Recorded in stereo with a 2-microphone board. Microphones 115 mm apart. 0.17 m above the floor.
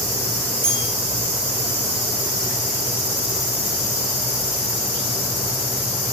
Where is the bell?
10° left (ahead or behind), 0.7 m.